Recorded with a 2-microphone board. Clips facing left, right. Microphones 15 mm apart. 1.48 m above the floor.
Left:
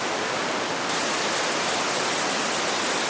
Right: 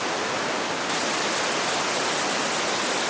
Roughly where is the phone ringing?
No phone ringing in this recording.